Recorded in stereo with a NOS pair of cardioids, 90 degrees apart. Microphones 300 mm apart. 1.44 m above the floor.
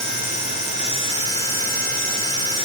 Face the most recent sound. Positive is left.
No sound to turn to.